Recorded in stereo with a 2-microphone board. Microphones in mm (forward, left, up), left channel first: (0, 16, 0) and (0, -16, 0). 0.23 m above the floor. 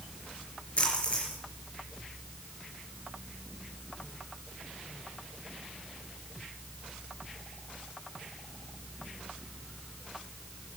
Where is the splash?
40° left (ahead or behind), 4.5 m.